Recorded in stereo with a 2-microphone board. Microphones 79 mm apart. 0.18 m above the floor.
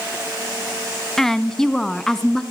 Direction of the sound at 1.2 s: 5° left (ahead or behind).